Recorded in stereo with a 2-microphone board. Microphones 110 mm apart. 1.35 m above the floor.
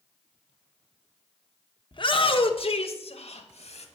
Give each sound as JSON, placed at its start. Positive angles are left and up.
{"t": 1.9, "sound": "a shout", "side_deg": 45, "distance_m": 1.0}